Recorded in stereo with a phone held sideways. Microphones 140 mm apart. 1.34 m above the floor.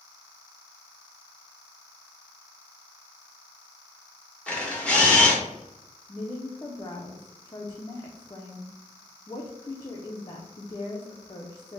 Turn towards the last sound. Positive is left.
turn(degrees=30)  # may be behind; listen again after turning